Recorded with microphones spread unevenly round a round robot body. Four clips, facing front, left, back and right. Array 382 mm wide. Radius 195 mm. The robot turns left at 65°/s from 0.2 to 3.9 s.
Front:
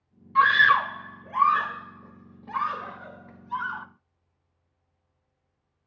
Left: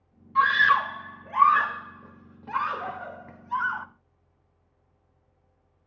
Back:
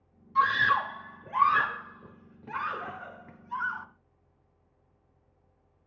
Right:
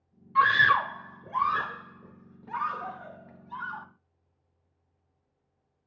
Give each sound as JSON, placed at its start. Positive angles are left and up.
{"t": 0.3, "sound": "a scream", "azimuth_deg": -70, "distance_m": 1.0}